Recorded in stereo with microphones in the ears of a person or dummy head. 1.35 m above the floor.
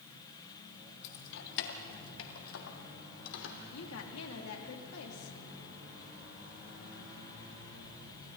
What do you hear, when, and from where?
1.0 s keys jangling: 65° left (ahead or behind), 1.7 m; by 3.6 s 80° left, 3 m
3.7 s a woman speaking: 85° left, 3 m